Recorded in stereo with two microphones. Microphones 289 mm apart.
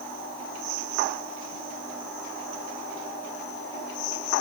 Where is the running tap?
I don't hear a running tap.